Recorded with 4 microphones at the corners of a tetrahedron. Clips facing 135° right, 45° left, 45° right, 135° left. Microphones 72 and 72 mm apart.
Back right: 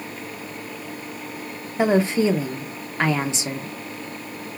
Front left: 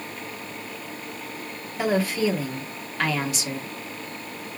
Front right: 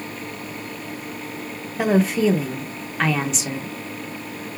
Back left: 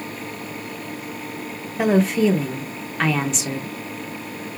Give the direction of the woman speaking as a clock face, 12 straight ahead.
4 o'clock.